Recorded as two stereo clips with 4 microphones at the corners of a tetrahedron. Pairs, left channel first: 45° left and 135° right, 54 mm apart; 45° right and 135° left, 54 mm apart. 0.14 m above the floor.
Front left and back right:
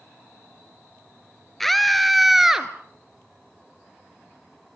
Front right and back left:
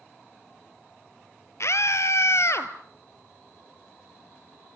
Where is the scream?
40° right, 2.5 m; by 2.7 s 60° right, 2.5 m.